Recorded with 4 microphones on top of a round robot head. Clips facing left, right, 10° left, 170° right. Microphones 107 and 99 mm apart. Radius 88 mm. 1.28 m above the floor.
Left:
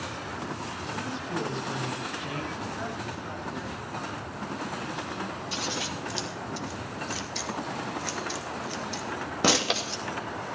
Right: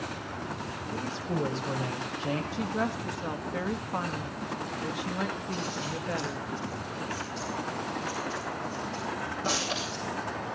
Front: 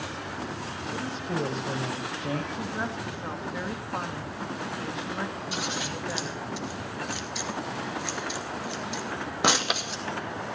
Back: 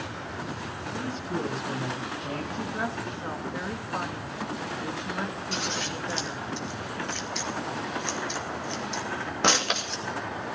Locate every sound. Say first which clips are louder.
0.9 s a woman speaking: right 1 dB, even; 35° right, 6 m
2.5 s a woman speaking: right 4 dB, back 1 dB; 75° right, 2.5 m
5.5 s scissors: even, even; 95° left, 2.5 m